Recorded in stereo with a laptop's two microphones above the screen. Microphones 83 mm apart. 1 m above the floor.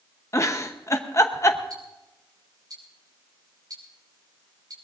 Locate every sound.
0.3 s a giggle: 35° left (ahead or behind), 0.8 m
1.7 s ticking: 50° right (ahead or behind), 5 m